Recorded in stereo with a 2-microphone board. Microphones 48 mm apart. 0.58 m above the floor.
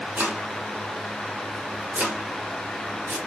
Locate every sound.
0.2 s chopping: 45° right (ahead or behind), 1.7 m